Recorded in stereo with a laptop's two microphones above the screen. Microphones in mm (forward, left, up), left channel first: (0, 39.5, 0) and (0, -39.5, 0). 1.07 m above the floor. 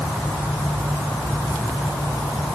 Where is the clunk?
No clunk in this recording.